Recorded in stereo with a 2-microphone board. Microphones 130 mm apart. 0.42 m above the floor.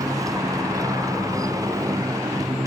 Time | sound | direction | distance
0.0 | a motorcycle | 25° right (ahead or behind) | ?